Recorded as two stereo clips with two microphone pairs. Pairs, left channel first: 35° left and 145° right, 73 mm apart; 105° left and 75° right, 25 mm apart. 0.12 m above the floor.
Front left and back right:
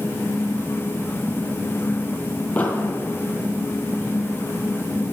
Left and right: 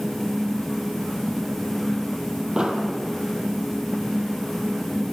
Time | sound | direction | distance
2.6 | an explosion | 30° right | 1.8 m